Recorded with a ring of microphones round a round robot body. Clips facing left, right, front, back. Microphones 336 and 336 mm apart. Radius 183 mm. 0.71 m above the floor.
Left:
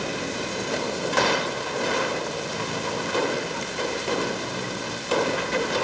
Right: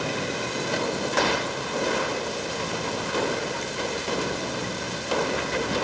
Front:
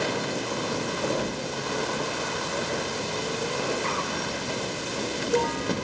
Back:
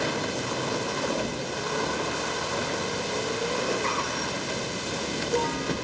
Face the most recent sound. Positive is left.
No sound to turn to.